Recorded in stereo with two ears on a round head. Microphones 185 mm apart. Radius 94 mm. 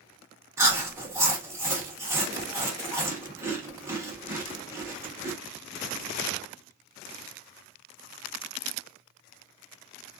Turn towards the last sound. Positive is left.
turn(degrees=-15)  # may be behind; listen again after turning